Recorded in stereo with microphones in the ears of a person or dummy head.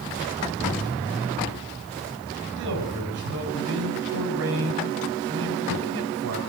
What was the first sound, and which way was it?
A man speaking, 80° right.